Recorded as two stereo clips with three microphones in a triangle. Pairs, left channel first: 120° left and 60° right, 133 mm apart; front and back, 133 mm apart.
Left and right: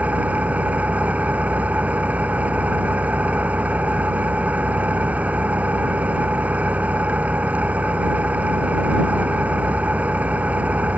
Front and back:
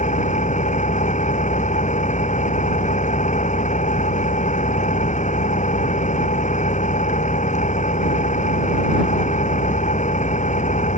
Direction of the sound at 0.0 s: 20° left.